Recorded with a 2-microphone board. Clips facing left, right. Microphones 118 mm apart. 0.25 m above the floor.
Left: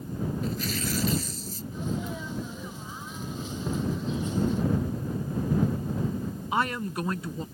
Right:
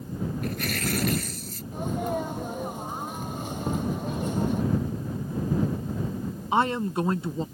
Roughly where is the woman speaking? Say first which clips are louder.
Right 5 dB; right.